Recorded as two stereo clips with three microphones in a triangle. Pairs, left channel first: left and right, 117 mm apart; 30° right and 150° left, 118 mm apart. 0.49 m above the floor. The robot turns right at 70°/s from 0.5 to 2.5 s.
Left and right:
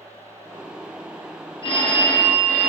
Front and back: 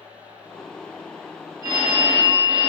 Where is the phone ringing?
100° left, 0.6 m; by 2.7 s 165° left, 0.6 m.